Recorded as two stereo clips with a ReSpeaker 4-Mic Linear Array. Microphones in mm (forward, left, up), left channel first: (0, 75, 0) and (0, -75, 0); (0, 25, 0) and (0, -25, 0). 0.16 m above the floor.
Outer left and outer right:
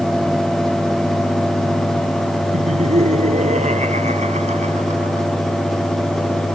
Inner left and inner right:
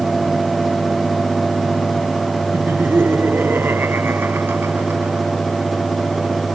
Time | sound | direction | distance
2.5 | laughter | 50° right (ahead or behind) | ?